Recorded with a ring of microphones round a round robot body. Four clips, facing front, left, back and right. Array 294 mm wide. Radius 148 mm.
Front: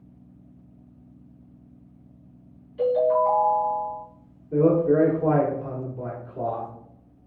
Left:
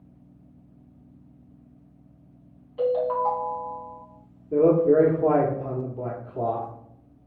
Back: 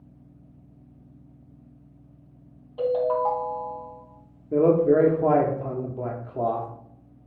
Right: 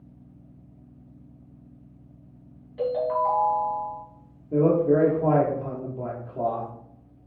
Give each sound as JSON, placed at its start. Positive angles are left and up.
{"t": 2.8, "sound": "a ringtone", "azimuth_deg": -155, "distance_m": 3.5}
{"t": 4.5, "sound": "a man speaking", "azimuth_deg": 175, "distance_m": 1.5}